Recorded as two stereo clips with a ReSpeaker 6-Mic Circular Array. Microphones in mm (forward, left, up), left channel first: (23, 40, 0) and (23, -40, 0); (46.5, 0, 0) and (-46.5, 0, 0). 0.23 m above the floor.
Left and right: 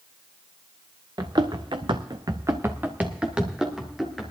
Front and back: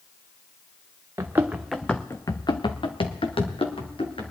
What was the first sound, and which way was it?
Running footsteps, 120° right.